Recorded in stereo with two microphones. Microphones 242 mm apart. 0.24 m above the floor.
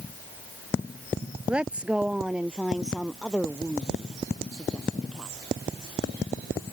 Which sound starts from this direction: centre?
A woman speaking, at 1.5 s.